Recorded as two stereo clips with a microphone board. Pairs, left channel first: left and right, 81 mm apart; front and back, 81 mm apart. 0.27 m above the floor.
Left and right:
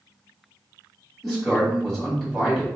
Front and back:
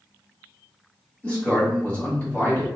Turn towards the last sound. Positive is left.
turn(degrees=10)